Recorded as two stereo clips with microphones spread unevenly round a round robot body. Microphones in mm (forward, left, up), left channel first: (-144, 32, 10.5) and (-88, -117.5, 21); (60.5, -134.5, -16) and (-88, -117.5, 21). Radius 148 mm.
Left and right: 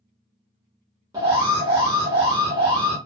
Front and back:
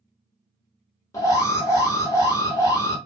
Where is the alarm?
5° right, 1.1 m.